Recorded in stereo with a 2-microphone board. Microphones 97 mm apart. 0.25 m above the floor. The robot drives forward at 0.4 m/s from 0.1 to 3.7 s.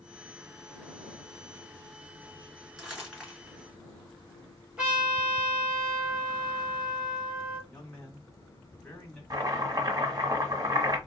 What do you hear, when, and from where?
2.8 s crumpling: 5° right (ahead or behind), 3 m
4.8 s a trumpet: 10° right (ahead or behind), 2 m
7.7 s a man speaking: 10° left (ahead or behind), 1.7 m
9.3 s chopping: 40° right (ahead or behind), 1.4 m